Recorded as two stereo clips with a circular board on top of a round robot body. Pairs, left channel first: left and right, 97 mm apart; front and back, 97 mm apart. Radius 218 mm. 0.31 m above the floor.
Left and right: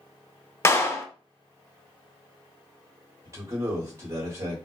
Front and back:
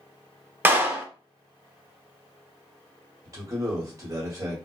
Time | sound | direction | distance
0.7 | a clap | 125° left | 0.8 m
3.2 | a man speaking | 135° right | 1.5 m